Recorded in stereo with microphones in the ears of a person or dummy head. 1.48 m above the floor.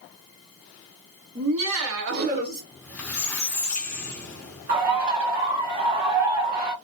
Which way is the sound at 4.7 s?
45° right (ahead or behind).